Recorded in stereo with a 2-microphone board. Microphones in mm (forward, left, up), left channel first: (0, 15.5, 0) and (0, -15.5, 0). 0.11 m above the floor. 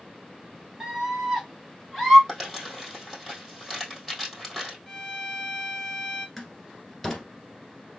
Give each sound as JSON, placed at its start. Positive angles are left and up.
{"t": 0.8, "sound": "a scream", "side_deg": -15, "distance_m": 2.5}
{"t": 2.3, "sound": "crumpling", "side_deg": -5, "distance_m": 2.5}
{"t": 4.9, "sound": "a violin", "side_deg": 5, "distance_m": 1.7}
{"t": 6.4, "sound": "a door slam", "side_deg": 10, "distance_m": 1.4}